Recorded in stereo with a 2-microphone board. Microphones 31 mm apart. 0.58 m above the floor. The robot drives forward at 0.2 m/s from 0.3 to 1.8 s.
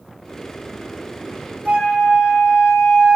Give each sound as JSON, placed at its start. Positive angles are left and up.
{"t": 1.6, "sound": "a flute", "side_deg": -60, "distance_m": 1.5}